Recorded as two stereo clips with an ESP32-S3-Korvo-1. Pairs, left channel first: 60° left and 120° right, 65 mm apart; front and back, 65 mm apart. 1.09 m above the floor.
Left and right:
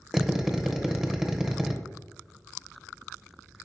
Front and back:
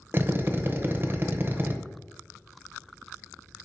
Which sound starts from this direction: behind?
A drill, at 0.1 s.